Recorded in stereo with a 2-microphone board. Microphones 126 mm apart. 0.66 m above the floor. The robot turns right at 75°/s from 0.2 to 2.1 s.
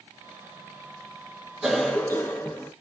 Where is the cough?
10° right, 0.8 m; by 2.7 s 30° left, 0.8 m.